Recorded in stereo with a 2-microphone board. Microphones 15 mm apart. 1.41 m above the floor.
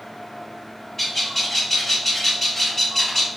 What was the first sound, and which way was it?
A bird, 20° left (ahead or behind).